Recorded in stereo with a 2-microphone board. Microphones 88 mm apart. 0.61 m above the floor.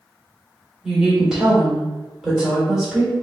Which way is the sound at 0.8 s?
5° right (ahead or behind).